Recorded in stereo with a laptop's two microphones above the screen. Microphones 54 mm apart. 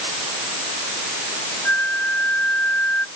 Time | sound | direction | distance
1.6 | a flute | 30° left (ahead or behind) | ?